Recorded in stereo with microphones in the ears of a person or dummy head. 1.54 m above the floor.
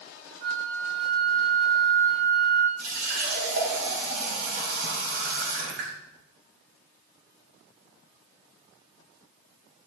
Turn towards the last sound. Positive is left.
turn(degrees=-70)  # may be behind; listen again after turning